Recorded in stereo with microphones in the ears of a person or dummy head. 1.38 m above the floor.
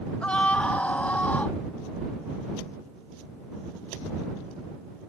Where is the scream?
10° left (ahead or behind).